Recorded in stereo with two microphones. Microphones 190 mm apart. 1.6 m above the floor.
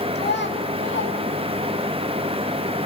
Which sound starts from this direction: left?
A child speaking, at 0.1 s.